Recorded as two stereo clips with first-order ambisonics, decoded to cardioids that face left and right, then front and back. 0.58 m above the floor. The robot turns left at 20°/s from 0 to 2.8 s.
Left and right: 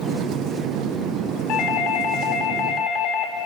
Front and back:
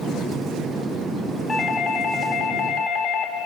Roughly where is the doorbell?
Left.